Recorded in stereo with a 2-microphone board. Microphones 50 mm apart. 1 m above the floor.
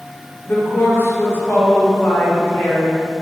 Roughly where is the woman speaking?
Left.